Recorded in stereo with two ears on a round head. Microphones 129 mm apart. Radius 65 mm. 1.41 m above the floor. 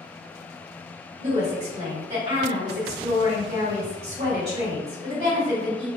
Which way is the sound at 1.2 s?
45° right (ahead or behind).